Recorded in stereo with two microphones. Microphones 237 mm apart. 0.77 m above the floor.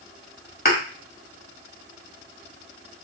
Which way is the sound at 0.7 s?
45° left (ahead or behind).